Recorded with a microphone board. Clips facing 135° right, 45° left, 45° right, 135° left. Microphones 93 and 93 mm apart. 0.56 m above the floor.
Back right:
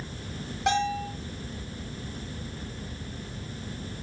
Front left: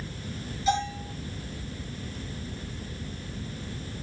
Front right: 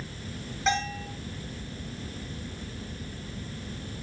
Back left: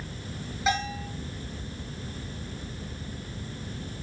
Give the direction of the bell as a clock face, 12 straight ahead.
5 o'clock.